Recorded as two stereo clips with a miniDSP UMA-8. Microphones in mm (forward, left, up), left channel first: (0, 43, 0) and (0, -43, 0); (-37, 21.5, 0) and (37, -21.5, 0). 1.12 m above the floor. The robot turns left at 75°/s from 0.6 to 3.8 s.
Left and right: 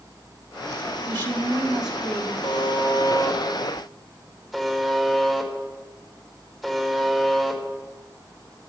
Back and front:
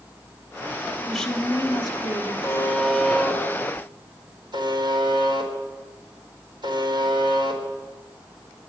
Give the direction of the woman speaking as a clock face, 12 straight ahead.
4 o'clock.